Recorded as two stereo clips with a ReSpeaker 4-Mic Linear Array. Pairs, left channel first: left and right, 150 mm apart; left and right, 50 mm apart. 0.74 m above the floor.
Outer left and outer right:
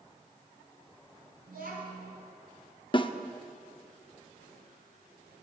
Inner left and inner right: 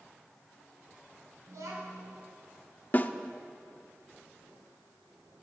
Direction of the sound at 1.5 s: 90° right.